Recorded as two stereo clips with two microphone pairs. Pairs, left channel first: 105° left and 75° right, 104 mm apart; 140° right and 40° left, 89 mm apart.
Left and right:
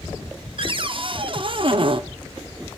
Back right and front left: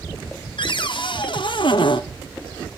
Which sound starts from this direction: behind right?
A cupboard door, at 0.6 s.